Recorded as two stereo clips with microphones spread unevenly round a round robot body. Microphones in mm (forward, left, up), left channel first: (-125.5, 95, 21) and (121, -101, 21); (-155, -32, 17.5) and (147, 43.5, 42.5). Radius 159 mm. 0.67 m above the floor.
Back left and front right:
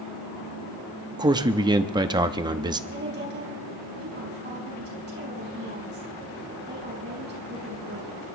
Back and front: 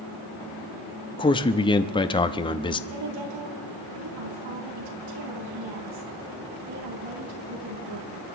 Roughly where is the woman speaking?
Ahead.